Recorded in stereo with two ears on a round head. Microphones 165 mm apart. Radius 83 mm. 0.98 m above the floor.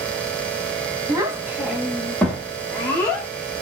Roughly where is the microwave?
I don't hear a microwave.